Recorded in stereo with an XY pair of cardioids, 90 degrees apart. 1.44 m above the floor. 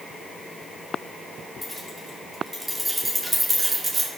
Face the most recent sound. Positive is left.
turn(degrees=-40)